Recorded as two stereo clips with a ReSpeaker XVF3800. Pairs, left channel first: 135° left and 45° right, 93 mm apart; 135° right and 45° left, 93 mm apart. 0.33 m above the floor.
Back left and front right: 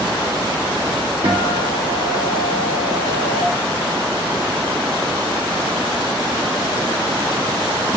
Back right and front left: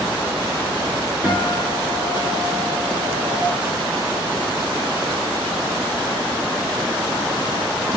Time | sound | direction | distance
1.2 | a guitar | 40° right | 2.5 m